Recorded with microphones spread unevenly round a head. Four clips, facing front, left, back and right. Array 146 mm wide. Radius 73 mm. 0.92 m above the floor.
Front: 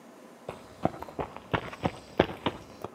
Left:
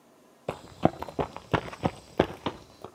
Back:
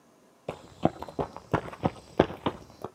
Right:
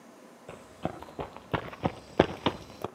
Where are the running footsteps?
90° left, 1.2 m; by 2.9 s 70° right, 1.0 m.